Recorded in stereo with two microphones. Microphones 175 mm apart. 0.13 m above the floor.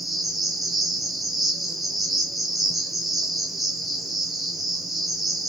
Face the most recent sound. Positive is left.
turn(degrees=0)  # may be behind; listen again after turning